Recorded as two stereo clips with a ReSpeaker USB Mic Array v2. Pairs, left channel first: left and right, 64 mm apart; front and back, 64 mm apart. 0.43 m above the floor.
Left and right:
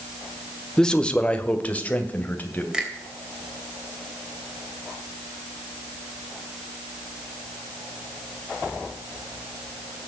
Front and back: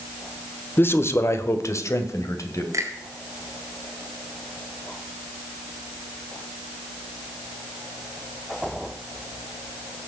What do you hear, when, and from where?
0.8 s a man speaking: 15° left, 1.1 m; by 2.6 s 30° left, 2.5 m
2.7 s a finger snap: 165° right, 2.5 m